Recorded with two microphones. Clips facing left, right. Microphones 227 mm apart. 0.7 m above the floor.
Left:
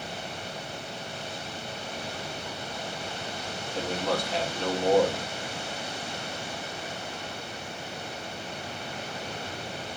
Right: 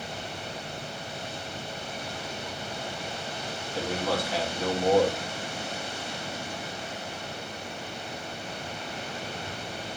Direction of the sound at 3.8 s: 5° right (ahead or behind).